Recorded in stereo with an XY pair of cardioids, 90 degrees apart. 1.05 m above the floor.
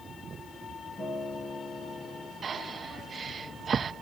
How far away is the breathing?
About 0.6 m.